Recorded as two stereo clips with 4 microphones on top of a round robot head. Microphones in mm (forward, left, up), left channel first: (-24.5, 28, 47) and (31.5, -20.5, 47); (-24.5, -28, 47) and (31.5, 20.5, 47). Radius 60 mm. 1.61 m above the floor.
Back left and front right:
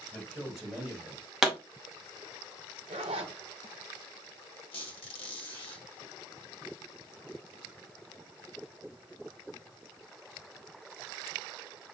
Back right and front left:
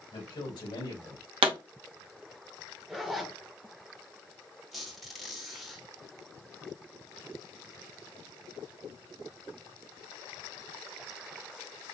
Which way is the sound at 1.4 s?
45° left.